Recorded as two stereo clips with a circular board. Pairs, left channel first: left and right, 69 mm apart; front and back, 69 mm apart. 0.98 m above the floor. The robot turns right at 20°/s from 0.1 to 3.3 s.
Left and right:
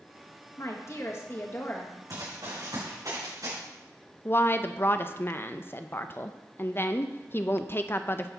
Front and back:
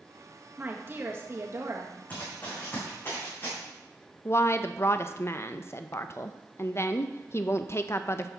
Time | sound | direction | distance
0.6 | a woman speaking | 120° left | 1.5 m
2.1 | running footsteps | 65° right | 4 m
4.2 | a woman speaking | 40° left | 0.5 m